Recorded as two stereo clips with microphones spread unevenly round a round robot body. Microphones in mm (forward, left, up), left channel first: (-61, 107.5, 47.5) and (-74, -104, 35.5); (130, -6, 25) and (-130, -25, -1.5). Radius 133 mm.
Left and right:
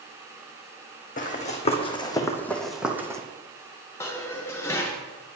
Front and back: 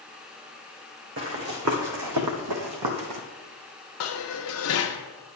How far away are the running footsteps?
About 1.7 m.